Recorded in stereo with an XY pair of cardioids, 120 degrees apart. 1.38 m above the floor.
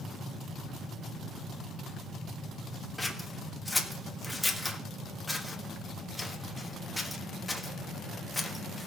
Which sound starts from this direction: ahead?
Scissors, at 3.0 s.